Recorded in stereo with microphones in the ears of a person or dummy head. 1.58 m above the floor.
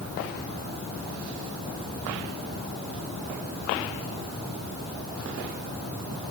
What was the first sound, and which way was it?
Only background noise.